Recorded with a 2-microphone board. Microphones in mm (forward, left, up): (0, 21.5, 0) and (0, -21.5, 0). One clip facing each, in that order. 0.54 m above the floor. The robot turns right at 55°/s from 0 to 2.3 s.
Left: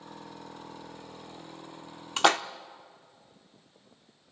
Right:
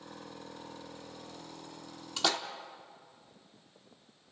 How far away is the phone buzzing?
No phone buzzing in this recording.